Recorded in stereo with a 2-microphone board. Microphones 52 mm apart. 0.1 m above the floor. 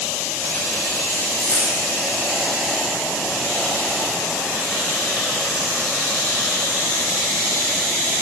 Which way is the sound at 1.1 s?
55° left (ahead or behind).